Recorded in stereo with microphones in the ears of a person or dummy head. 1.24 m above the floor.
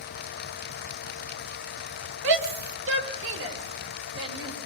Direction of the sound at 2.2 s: 75° right (ahead or behind).